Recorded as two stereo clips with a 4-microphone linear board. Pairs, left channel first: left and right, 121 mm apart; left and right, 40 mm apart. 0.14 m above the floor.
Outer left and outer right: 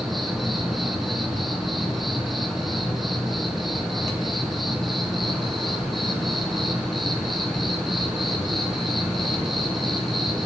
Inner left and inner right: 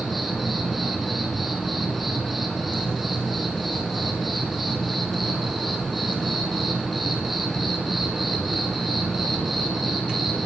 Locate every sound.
0.0 s an insect: centre (ahead or behind), 2.5 m